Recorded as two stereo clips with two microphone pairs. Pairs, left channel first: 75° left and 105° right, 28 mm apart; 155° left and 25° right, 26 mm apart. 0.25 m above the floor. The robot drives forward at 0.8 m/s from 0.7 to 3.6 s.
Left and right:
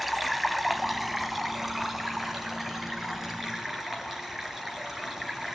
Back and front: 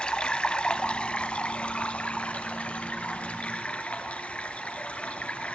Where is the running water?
170° left, 1.6 m; by 5.6 s 175° left, 3.5 m.